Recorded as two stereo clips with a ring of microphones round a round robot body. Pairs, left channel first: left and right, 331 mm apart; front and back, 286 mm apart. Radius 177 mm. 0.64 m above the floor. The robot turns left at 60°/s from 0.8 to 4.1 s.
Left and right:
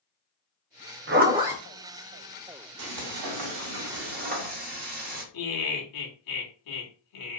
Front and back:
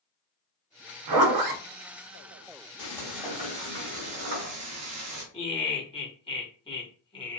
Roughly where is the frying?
Right.